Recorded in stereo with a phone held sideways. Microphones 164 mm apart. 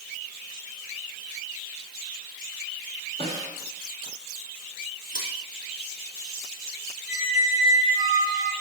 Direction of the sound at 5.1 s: 60° right (ahead or behind).